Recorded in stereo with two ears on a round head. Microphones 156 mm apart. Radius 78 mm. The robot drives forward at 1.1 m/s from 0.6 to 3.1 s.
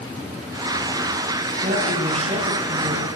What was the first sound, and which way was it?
A woman speaking, 40° right (ahead or behind).